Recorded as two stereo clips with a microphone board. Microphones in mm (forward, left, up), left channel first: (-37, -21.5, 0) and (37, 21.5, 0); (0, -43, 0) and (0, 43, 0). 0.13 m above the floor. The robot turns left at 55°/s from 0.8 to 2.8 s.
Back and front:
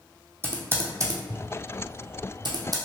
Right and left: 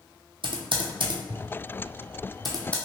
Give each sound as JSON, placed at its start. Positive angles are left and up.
{"t": 0.4, "sound": "typing on a keyboard", "azimuth_deg": 90, "distance_m": 0.8}